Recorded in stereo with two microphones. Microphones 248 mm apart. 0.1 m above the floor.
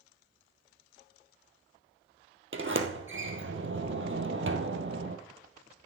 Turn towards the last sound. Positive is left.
turn(degrees=-50)  # may be behind; listen again after turning